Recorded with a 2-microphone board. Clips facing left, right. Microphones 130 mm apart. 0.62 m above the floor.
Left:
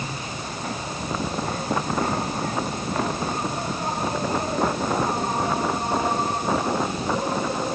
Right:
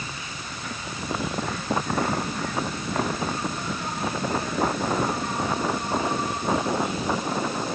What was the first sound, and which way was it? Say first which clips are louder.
An insect: left 5 dB; 40° left (ahead or behind).